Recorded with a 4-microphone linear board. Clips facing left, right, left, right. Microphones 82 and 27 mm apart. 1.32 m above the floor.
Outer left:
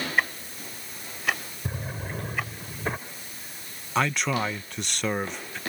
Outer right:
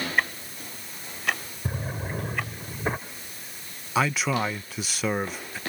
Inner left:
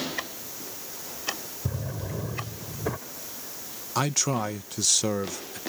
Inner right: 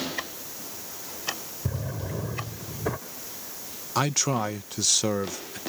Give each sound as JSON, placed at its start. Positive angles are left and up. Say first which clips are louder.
{"t": 0.2, "sound": "ticking", "louder": "outer left 2 dB, even", "side_deg": 5}
{"t": 1.6, "sound": "a drawer", "louder": "outer right 2 dB, inner right 1 dB", "side_deg": -10}
{"t": 4.0, "sound": "a man speaking", "louder": "outer right 1 dB, inner right 1 dB", "side_deg": -5}